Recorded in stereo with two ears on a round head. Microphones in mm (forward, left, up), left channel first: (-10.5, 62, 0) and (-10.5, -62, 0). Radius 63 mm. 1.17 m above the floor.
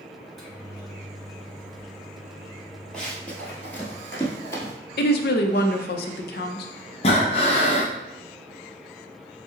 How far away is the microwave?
About 1.3 m.